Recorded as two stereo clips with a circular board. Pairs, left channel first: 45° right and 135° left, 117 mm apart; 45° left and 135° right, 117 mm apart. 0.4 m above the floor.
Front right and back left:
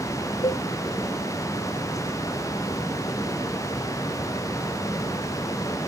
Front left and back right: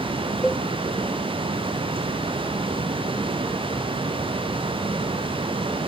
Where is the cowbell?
50° right, 0.5 m.